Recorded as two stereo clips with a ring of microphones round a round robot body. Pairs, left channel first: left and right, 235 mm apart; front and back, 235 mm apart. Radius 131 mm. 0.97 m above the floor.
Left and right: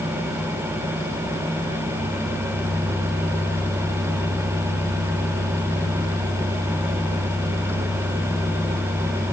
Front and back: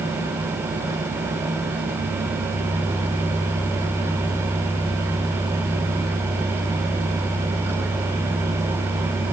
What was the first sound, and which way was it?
Only background noise.